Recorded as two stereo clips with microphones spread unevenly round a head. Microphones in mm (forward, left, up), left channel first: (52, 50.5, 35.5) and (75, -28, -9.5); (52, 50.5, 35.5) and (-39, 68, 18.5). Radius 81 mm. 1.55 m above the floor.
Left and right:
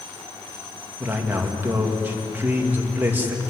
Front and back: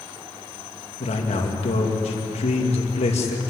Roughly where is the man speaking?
Ahead.